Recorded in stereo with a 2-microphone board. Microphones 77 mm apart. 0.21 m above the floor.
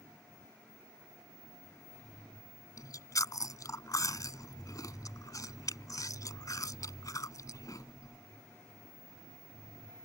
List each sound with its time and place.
2.8 s chewing: 50° left (ahead or behind)